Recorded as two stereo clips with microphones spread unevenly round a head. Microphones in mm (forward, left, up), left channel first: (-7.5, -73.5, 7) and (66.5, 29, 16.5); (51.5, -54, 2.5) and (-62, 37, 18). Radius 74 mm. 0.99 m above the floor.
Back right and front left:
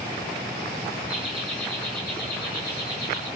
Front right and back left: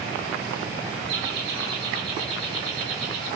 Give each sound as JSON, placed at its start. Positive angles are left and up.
{"t": 1.1, "sound": "laughter", "azimuth_deg": 140, "distance_m": 2.5}